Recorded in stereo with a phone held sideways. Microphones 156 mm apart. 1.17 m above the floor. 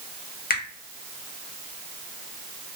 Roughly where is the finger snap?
Left.